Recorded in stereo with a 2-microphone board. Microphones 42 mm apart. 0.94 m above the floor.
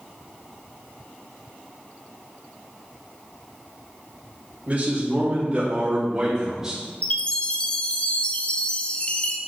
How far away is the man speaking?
About 2.5 m.